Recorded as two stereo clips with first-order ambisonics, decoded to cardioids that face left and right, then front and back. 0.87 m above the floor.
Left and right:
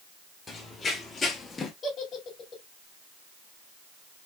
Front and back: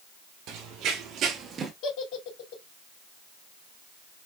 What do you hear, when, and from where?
0.5 s running footsteps: 165° left, 1.4 m; by 1.7 s 130° left, 0.9 m
1.8 s a giggle: 25° left, 2 m